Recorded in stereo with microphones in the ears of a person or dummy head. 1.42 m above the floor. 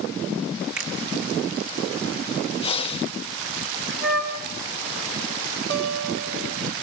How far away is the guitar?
About 2.5 m.